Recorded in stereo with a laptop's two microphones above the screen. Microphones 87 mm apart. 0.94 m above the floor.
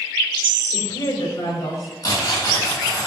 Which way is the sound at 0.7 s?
60° left (ahead or behind).